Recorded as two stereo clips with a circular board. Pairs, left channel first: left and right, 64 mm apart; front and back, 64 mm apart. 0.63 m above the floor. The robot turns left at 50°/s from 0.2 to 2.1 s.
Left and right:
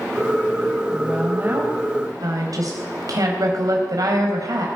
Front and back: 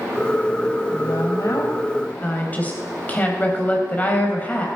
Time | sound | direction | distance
0.9 | a woman speaking | 5° right | 3.5 m